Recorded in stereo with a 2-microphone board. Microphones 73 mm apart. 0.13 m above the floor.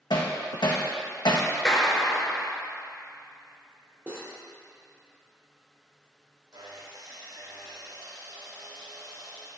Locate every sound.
0.1 s hammering: 80° left, 1.6 m
1.6 s a clap: 10° left (ahead or behind), 1.4 m
4.1 s cutlery clinking: 25° right (ahead or behind), 2.5 m
6.5 s sawing: 65° right (ahead or behind), 2.5 m